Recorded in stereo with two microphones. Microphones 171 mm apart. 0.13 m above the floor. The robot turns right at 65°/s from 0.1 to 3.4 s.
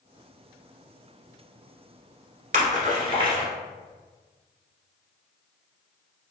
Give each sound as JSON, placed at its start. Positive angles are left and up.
{"t": 2.5, "sound": "a splash", "side_deg": -50, "distance_m": 1.5}